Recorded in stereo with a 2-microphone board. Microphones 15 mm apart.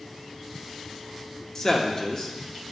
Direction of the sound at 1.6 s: 40° left (ahead or behind).